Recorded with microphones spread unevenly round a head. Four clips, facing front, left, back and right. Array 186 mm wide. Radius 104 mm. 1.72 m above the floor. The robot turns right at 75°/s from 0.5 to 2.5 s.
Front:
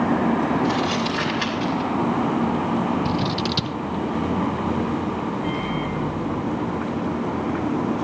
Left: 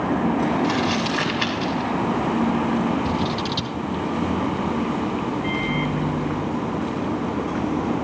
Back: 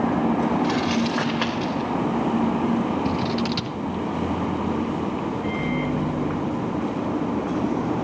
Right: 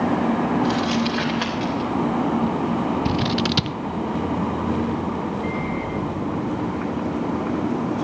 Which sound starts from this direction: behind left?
Crumpling, at 0.6 s.